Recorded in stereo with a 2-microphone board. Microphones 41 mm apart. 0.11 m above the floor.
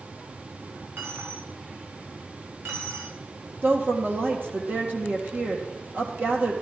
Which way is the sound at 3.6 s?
50° right (ahead or behind).